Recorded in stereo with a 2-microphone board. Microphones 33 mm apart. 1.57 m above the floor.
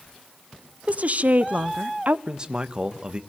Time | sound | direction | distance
0.9 | a woman speaking | 45° right (ahead or behind) | 0.8 m
2.3 | a man speaking | 30° right (ahead or behind) | 1.3 m